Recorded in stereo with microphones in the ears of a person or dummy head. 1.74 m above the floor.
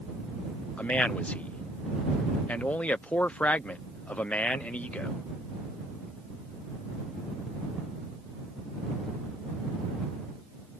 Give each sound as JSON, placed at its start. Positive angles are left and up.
{"t": 0.8, "sound": "a man speaking", "side_deg": 10}